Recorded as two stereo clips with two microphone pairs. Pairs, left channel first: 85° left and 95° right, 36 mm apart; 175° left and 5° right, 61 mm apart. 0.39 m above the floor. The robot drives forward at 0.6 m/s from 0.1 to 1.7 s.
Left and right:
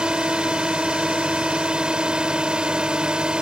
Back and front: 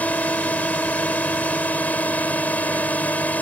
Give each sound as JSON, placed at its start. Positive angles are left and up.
{"t": 0.0, "sound": "a drone", "azimuth_deg": -140}